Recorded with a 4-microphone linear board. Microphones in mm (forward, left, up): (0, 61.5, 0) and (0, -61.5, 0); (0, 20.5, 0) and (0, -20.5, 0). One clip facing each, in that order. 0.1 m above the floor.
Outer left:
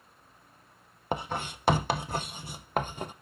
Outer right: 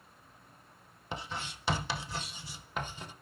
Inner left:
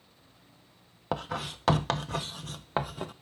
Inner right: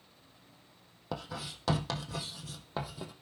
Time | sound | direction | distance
1.1 | writing | 55° left (ahead or behind) | 0.6 m